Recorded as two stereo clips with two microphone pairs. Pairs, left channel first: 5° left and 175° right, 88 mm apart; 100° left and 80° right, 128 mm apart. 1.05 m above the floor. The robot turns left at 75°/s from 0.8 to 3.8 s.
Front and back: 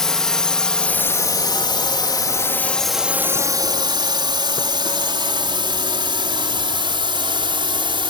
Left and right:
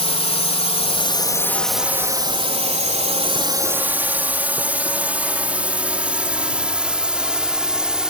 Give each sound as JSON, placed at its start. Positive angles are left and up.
{"t": 0.0, "sound": "a drone", "azimuth_deg": 90}